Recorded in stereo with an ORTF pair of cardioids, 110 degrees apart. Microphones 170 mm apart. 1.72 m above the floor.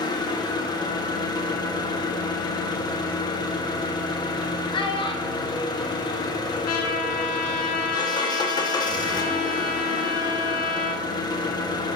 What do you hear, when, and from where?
0.0 s an engine running: 25° left, 1.3 m
4.7 s a child speaking: 30° left, 1.8 m
6.7 s a trumpet: 60° left, 2 m